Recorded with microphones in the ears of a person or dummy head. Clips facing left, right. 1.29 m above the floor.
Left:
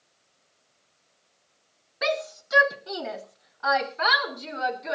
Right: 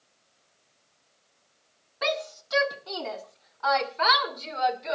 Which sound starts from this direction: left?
A shout, at 2.0 s.